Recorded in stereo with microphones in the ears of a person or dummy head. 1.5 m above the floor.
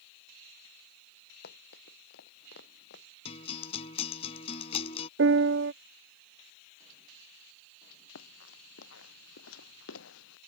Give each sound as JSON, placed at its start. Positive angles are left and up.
{"t": 1.4, "sound": "running footsteps", "side_deg": 65}
{"t": 3.2, "sound": "a guitar", "side_deg": 35}
{"t": 5.2, "sound": "a piano", "side_deg": -65}
{"t": 8.2, "sound": "running footsteps", "side_deg": 85}